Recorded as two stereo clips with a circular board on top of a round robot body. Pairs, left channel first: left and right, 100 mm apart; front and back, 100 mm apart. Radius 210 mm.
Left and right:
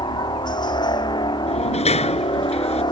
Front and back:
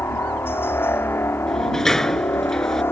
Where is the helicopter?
60° left.